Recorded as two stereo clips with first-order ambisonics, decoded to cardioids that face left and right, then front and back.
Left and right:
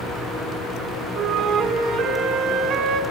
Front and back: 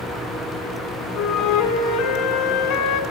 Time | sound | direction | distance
1.1 | a flute | 35° right | 2 m